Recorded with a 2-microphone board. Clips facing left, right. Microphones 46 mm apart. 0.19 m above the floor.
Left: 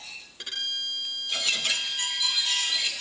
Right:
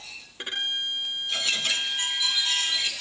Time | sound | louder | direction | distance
0.4 | a violin | right 3 dB | 30° right (ahead or behind) | ?